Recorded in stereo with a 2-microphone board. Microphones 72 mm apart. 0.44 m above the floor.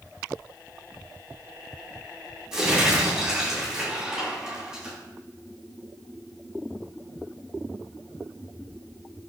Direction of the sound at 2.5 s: 10° right (ahead or behind).